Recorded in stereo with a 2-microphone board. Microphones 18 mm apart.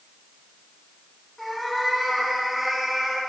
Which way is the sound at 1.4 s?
Centre (ahead or behind).